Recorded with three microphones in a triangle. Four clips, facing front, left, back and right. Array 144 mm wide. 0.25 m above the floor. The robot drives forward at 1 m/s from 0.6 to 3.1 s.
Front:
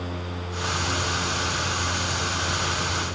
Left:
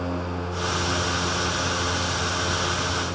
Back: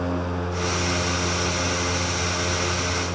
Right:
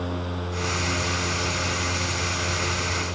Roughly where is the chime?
No chime in this recording.